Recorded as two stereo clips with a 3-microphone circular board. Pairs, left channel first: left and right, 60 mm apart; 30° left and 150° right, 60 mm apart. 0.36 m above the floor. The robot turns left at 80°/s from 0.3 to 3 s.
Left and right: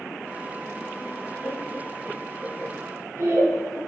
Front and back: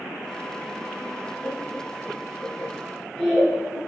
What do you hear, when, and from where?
1.4 s laughter: 65° left, 4 m; by 3.8 s 60° right, 4 m